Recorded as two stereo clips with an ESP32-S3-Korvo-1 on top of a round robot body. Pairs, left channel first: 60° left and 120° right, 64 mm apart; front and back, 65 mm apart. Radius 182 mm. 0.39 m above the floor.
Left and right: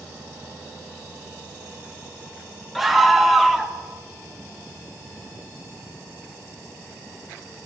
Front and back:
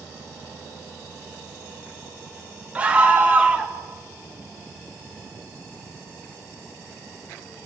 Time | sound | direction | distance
2.8 | a scream | 155° left | 0.8 m